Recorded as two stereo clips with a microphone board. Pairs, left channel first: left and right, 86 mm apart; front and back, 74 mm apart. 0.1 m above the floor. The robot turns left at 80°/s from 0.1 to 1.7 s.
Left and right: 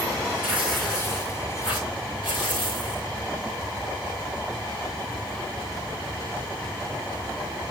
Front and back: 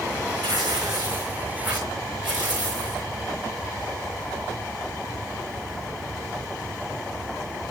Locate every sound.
0.4 s tearing paper: 155° right, 6 m; by 3.1 s 105° left, 6 m